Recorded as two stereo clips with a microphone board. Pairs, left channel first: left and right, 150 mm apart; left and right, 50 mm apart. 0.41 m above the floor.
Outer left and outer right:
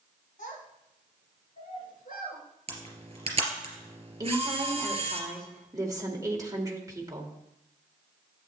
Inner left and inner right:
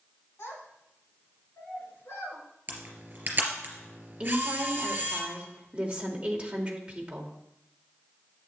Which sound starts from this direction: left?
A child speaking, at 0.4 s.